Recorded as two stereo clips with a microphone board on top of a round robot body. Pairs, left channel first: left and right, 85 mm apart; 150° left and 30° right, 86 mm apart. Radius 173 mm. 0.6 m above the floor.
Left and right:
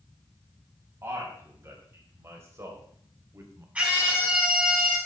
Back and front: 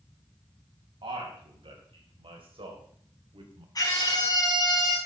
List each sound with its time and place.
1.0 s a man speaking: 30° right, 4 m; by 3.6 s 35° right, 2 m
3.8 s a scream: 165° right, 6 m